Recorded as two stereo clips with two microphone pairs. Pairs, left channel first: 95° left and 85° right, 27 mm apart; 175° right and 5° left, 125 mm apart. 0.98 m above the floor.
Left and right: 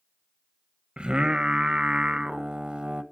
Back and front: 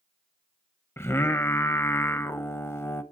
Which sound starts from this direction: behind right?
Singing, at 1.0 s.